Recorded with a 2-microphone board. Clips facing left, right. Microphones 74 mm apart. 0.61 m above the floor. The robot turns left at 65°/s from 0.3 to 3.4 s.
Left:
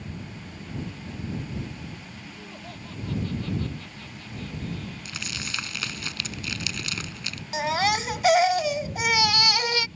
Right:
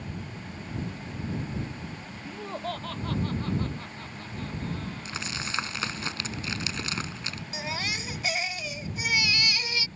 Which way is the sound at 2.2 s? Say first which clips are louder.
Right 11 dB; 70° right.